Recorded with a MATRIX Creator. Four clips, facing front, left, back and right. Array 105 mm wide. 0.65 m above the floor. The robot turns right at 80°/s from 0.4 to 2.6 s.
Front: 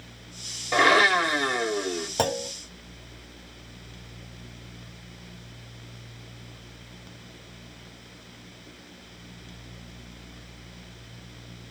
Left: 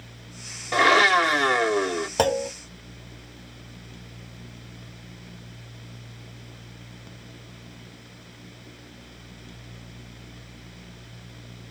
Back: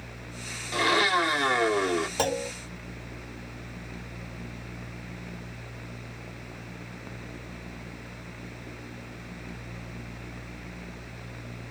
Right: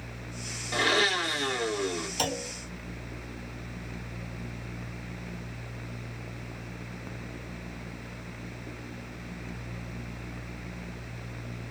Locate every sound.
0.7 s a blender: 40° left, 0.6 m; by 2.1 s 150° left, 0.6 m
2.2 s a clunk: 70° left, 0.7 m; by 2.5 s 95° left, 0.7 m